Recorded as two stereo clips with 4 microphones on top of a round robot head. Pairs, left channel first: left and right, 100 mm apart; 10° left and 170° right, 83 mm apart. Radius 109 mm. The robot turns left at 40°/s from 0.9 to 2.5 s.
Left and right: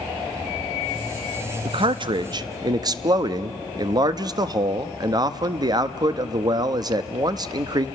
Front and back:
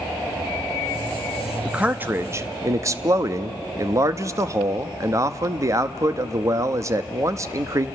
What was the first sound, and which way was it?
A man speaking, 95° right.